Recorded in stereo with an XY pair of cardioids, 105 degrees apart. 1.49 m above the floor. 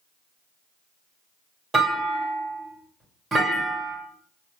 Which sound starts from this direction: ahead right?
A clunk, at 1.7 s.